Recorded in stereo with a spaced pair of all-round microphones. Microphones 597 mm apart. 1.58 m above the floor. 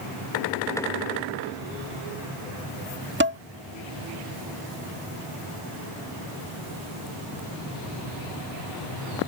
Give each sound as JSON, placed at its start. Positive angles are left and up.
{"t": 3.2, "sound": "dishes clattering", "side_deg": -20}